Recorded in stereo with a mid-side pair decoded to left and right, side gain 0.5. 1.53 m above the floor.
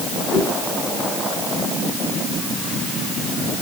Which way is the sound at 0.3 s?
70° left.